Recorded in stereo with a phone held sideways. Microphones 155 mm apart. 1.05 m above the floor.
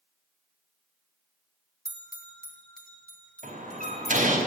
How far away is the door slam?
About 4.5 m.